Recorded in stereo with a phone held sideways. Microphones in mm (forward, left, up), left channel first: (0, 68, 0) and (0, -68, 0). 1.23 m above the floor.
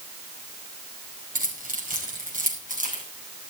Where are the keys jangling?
85° right, 5 m; by 3.0 s 80° right, 6 m.